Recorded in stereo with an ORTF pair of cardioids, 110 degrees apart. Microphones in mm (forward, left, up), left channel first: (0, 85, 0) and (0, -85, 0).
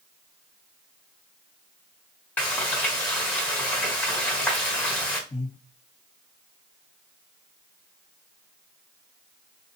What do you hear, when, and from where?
2.4 s frying: 10° left, 1.2 m
5.3 s breathing: 20° left, 1.5 m